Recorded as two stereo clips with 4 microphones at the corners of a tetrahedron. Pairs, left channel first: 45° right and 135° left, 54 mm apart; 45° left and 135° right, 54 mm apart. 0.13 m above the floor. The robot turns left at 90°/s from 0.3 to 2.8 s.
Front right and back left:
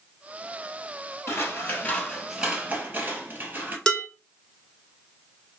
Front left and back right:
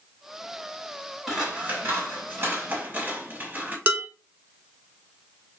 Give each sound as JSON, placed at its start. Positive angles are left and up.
{"t": 1.3, "sound": "scissors", "azimuth_deg": -50, "distance_m": 1.5}
{"t": 3.9, "sound": "dishes clattering", "azimuth_deg": -115, "distance_m": 0.9}